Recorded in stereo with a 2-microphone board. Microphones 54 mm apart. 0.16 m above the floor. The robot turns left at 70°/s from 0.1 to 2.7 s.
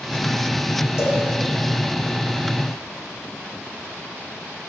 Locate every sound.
1.0 s a cowbell: 55° left (ahead or behind), 8.5 m; by 1.2 s 70° left (ahead or behind), 8.5 m